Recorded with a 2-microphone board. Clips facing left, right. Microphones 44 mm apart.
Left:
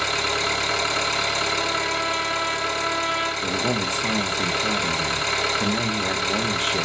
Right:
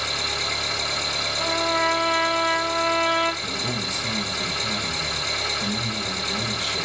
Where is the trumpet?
65° right (ahead or behind), 2 m.